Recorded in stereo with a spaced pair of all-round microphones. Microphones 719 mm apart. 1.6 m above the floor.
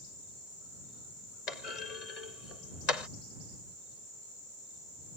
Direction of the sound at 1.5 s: 65° left (ahead or behind).